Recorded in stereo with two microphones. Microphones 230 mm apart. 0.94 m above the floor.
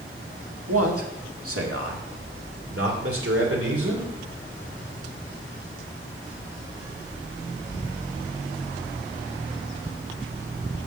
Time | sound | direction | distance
0.7 | a man speaking | 80° right | 1.5 m